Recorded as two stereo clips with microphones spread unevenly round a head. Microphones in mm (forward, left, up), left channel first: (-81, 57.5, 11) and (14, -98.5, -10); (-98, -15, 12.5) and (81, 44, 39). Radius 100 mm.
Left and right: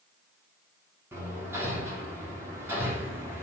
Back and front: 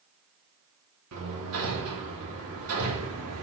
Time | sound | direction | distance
1.1 | hammering | 20° left | 3 m